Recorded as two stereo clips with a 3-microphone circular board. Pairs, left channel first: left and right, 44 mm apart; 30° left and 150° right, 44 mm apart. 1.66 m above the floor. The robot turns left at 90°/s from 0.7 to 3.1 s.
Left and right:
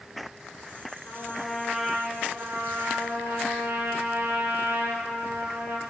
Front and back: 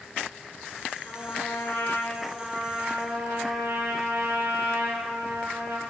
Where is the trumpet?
60° left, 6 m; by 5.8 s 125° right, 6 m.